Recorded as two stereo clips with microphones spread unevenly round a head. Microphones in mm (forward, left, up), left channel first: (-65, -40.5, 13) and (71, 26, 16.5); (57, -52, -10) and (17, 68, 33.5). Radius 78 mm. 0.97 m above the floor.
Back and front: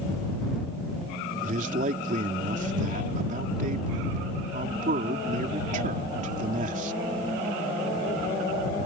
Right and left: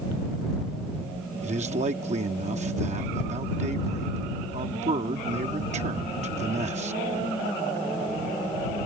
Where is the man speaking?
70° left.